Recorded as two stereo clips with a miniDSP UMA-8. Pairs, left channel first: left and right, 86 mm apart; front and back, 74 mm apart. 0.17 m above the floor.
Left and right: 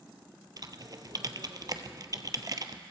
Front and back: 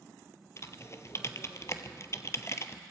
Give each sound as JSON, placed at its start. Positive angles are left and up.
{"t": 0.6, "sound": "typing on a keyboard", "azimuth_deg": -50, "distance_m": 0.6}